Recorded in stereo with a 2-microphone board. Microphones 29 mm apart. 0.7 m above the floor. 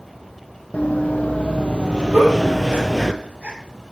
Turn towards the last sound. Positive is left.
turn(degrees=-75)  # may be behind; listen again after turning